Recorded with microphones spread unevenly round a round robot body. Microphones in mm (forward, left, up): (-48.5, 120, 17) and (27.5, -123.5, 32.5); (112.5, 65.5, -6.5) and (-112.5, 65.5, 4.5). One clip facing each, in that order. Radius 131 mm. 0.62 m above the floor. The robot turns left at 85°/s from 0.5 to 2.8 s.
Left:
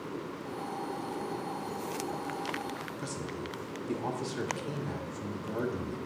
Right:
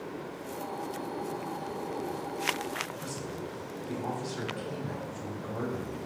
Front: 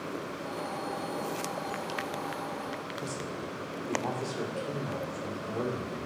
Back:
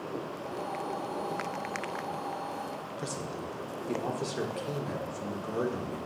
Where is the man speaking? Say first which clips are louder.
Even, back 2 dB; 115° left, 1.6 m.